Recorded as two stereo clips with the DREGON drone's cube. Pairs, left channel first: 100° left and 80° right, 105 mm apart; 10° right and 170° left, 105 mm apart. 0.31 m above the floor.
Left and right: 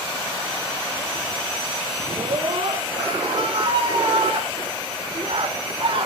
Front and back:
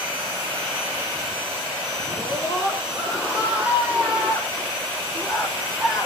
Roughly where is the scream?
Behind right.